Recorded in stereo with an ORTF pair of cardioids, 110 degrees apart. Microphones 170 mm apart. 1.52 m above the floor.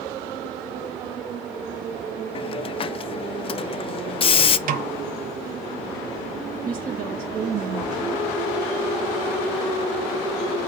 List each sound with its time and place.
2.4 s a hiss: 35° left, 0.6 m
4.7 s a snare drum: 55° right, 1.1 m
6.7 s a woman speaking: 55° right, 1.3 m